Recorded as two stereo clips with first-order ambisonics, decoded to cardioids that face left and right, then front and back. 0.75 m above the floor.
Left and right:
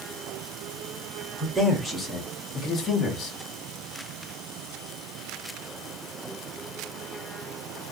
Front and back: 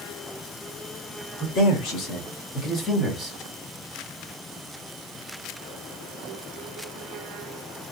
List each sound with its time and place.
1.4 s a man speaking: 15° right, 1.5 m; by 3.4 s 85° left, 1.1 m